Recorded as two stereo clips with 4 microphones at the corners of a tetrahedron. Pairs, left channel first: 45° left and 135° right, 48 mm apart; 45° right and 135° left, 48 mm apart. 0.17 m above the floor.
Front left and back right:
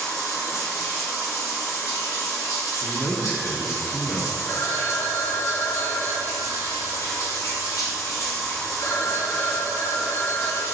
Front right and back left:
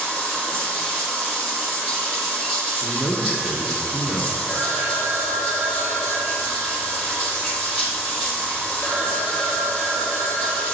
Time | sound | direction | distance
0.0 | running water | 55° left | 4 m
2.8 | a man speaking | 20° left | 1.7 m
4.5 | a phone ringing | 50° left | 2.5 m